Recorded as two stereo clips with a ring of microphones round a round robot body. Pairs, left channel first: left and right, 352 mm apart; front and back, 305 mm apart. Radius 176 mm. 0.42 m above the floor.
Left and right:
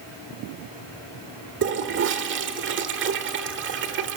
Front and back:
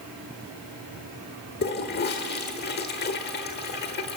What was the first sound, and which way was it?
A toilet flushing, 45° right.